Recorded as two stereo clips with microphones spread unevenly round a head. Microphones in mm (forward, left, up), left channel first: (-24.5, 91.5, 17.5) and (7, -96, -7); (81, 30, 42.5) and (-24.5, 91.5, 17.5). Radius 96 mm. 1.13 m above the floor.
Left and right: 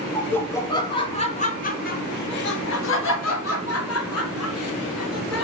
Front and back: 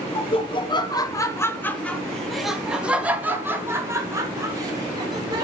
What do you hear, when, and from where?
0.1 s laughter: 15° left, 1.4 m; by 5.5 s 95° left, 2.5 m